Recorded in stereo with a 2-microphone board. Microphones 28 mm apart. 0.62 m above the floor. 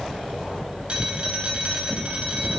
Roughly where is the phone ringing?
Right.